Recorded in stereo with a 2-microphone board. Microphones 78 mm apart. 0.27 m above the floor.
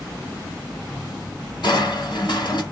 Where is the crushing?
65° left (ahead or behind), 2.0 m.